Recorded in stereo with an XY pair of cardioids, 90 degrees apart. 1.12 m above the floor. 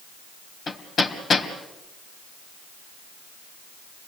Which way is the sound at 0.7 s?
50° left.